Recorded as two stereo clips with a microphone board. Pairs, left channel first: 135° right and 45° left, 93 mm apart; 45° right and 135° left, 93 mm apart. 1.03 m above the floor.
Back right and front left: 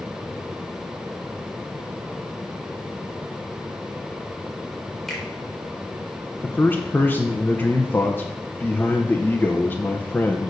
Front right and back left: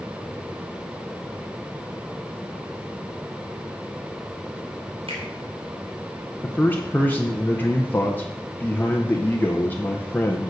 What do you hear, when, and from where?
5.1 s a finger snap: 140° left, 3 m
6.4 s a man speaking: 90° right, 0.8 m